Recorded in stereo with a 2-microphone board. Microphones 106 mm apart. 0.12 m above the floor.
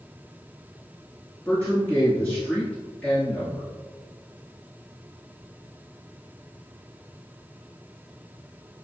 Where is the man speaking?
15° left (ahead or behind), 1.4 m.